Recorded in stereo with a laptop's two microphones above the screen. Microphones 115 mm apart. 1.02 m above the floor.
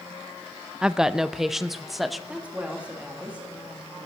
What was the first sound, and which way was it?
A woman speaking, 5° right (ahead or behind).